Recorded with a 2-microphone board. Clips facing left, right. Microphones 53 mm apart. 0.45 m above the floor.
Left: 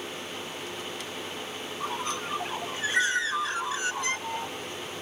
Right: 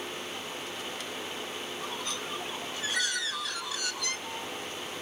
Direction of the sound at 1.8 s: 35° left (ahead or behind).